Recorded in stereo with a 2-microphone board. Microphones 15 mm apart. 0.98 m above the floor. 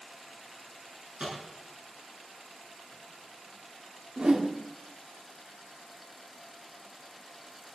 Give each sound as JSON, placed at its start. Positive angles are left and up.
{"t": 1.2, "sound": "a microwave", "side_deg": -75, "distance_m": 9.0}
{"t": 4.2, "sound": "a whoosh", "side_deg": -70, "distance_m": 1.8}